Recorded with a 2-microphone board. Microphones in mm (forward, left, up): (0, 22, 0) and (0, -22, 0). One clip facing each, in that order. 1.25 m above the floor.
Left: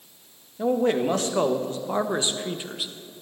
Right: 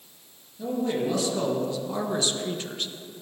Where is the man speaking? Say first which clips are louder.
Left 5 dB; 55° left (ahead or behind), 1.9 m; by 2.9 s 5° left (ahead or behind), 1.0 m.